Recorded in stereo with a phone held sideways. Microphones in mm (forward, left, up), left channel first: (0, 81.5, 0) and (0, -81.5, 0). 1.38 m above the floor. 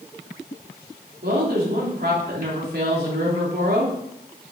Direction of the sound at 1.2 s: 70° right (ahead or behind).